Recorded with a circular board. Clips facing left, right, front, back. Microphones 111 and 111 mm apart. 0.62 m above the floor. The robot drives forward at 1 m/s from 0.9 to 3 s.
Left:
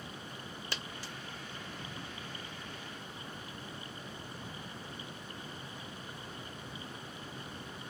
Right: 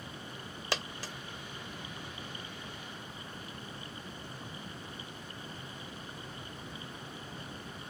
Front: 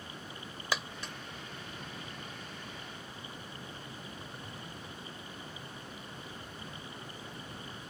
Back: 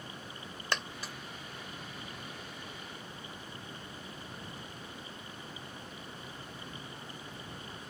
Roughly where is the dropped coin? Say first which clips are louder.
Right 9 dB, even; right.